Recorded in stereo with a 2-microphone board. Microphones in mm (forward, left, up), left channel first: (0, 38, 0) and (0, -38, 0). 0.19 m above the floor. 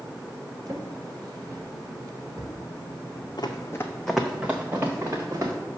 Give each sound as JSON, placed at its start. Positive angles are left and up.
{"t": 0.7, "sound": "a drawer", "side_deg": -50, "distance_m": 1.4}
{"t": 3.4, "sound": "running footsteps", "side_deg": 65, "distance_m": 0.9}